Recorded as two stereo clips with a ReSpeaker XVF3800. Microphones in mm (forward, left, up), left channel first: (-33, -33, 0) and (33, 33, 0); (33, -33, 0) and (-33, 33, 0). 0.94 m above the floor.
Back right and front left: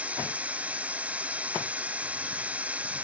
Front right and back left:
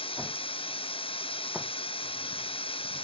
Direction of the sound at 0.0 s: 30° right.